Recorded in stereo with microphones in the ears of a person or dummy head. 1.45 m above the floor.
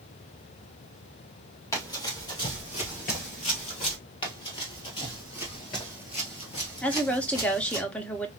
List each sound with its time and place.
1.7 s running footsteps: 15° left (ahead or behind), 2 m; by 4.0 s 35° left (ahead or behind), 2 m
4.2 s running footsteps: 25° left (ahead or behind), 1.9 m; by 7.8 s 20° left (ahead or behind), 1.8 m
6.8 s a woman speaking: 5° left (ahead or behind), 0.9 m